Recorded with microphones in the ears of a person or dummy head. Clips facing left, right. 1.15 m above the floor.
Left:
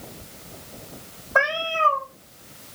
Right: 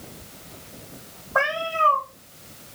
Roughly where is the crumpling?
No crumpling in this recording.